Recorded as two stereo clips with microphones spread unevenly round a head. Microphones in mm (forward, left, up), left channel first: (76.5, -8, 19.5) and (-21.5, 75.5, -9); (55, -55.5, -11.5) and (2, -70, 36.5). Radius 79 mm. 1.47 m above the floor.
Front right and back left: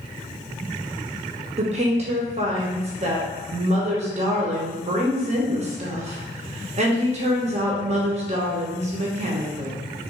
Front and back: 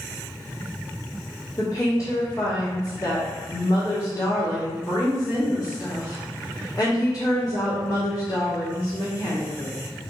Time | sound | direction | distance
1.6 | a woman speaking | 105° left | 0.8 m